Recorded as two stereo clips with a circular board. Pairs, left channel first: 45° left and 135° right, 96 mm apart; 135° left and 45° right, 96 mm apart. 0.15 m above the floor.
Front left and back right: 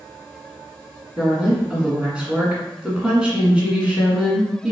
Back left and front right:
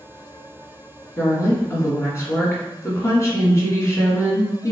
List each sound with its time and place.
1.2 s a woman speaking: 155° left, 1.8 m